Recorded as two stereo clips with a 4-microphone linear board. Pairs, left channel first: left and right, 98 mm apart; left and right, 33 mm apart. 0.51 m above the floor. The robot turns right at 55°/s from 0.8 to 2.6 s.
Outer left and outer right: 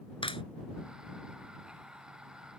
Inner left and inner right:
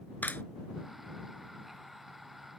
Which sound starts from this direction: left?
A clap, at 0.2 s.